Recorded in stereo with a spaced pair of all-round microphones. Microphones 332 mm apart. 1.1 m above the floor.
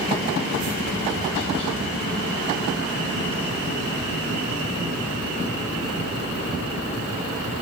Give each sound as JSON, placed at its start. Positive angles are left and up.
{"t": 0.6, "sound": "tapping", "side_deg": -60, "distance_m": 2.5}